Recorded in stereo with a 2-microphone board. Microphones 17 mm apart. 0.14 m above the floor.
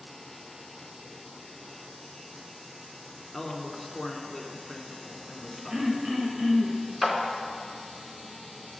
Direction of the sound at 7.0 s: 5° right (ahead or behind).